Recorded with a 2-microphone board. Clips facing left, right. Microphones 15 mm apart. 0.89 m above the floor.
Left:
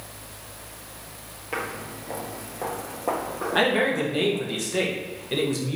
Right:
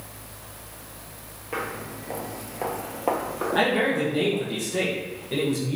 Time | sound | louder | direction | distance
1.5 | footsteps | even | 15° left (ahead or behind) | 1.0 m
3.5 | a man speaking | left 1 dB | 25° left (ahead or behind) | 0.9 m